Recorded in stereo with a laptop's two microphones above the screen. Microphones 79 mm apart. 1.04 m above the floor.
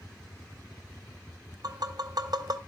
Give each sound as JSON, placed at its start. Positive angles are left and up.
{"t": 1.6, "sound": "tapping", "side_deg": -60, "distance_m": 0.6}